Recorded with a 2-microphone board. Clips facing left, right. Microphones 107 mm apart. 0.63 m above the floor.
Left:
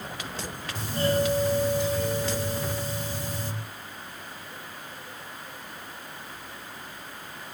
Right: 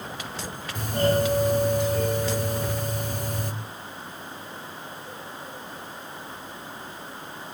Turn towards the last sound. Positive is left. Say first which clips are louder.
# right 3 dB
turn(degrees=-50)  # may be behind; listen again after turning